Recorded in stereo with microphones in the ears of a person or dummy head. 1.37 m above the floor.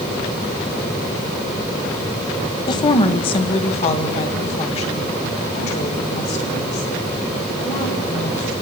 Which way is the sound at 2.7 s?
25° left (ahead or behind).